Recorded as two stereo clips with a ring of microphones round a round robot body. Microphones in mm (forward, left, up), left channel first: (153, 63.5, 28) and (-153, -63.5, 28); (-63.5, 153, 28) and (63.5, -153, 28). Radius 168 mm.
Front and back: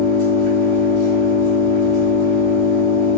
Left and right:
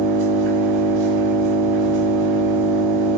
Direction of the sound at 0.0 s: 40° right.